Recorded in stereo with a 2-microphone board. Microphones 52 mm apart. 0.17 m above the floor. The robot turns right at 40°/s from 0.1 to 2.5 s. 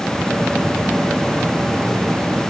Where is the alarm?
No alarm in this recording.